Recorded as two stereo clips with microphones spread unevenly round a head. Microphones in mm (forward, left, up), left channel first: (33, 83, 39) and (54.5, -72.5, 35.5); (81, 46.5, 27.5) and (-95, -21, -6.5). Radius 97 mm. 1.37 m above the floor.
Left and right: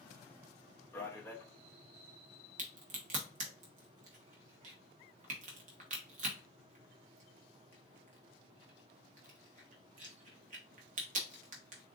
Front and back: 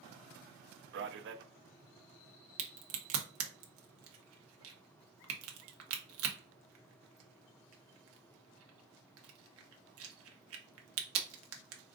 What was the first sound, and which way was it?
A man speaking, 175° left.